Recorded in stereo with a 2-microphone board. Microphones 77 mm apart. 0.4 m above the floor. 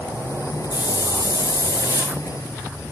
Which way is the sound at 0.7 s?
65° left (ahead or behind).